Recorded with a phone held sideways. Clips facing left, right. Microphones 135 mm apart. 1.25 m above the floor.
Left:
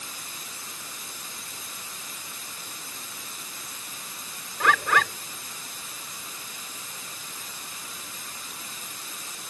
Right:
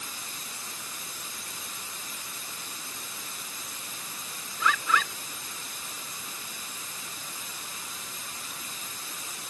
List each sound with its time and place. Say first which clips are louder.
4.6 s a bird: left 4 dB; 65° left (ahead or behind)